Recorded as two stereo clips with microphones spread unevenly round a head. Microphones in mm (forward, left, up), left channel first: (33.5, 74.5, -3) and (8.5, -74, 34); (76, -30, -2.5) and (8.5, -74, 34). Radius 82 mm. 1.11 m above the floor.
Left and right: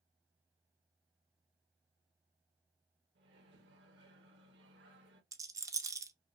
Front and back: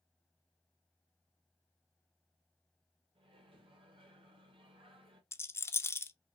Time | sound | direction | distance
3.1 | a microwave | 125° right | 1.4 m
5.3 | a rattle | 35° right | 0.7 m